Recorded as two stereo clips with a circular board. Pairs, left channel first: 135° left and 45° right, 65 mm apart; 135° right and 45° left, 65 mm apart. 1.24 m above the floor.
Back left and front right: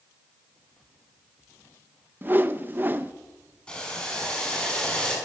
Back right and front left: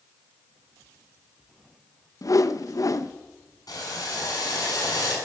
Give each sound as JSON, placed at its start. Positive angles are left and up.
{"t": 2.2, "sound": "a whoosh", "azimuth_deg": -105, "distance_m": 1.0}
{"t": 3.7, "sound": "boiling", "azimuth_deg": -150, "distance_m": 7.5}